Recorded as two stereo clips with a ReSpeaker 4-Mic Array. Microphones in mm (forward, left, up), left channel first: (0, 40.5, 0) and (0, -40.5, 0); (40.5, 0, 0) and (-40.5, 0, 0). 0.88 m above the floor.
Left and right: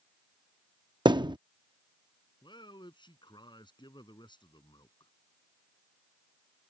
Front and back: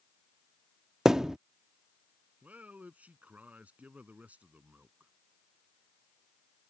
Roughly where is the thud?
Right.